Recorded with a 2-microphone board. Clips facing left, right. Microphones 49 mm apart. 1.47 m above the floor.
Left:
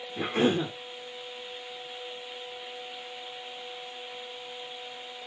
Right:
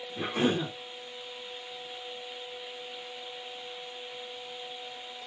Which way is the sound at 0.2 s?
45° left (ahead or behind).